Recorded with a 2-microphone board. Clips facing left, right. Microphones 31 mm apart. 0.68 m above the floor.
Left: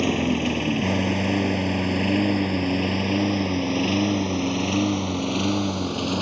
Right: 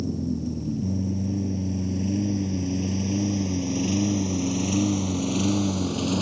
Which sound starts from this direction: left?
A lawn mower, at 0.0 s.